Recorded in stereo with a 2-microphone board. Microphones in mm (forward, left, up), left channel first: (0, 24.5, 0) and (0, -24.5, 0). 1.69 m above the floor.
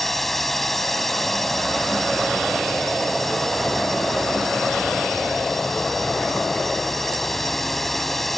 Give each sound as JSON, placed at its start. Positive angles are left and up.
{"t": 0.0, "sound": "a drone", "side_deg": 5}